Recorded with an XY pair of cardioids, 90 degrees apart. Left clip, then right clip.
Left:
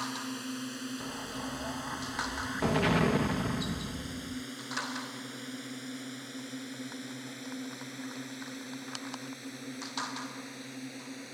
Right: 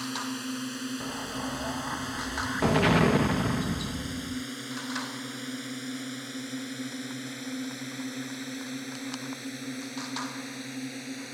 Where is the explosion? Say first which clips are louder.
Right 5 dB; 40° right.